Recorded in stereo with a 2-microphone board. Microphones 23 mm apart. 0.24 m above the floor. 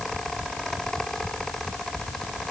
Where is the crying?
I don't hear crying.